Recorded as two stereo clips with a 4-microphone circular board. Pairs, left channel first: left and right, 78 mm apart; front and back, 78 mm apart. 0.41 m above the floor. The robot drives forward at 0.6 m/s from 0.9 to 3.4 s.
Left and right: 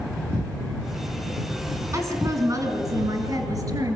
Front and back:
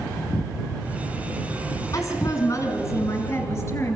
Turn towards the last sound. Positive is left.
turn(degrees=-55)